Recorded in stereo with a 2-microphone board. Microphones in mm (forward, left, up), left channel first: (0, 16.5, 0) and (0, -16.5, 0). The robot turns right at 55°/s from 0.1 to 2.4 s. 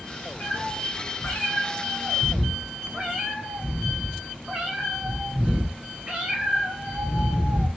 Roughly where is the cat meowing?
Left.